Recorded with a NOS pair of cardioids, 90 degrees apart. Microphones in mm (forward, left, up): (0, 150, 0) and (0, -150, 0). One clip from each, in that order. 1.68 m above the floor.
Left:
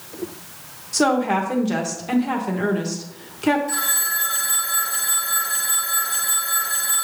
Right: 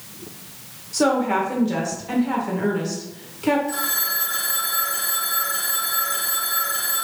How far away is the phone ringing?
About 2.5 m.